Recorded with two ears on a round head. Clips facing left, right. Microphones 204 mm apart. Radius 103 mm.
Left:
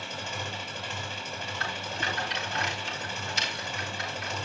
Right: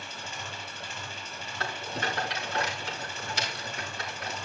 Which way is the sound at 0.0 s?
60° left (ahead or behind).